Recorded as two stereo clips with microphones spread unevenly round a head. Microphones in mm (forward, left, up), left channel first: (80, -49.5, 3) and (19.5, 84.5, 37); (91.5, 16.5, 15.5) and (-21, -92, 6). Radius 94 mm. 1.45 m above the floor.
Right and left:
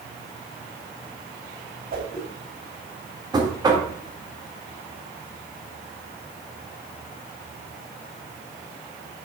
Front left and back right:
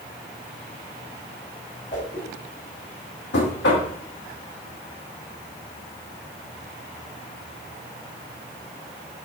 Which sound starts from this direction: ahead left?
Knocking, at 3.3 s.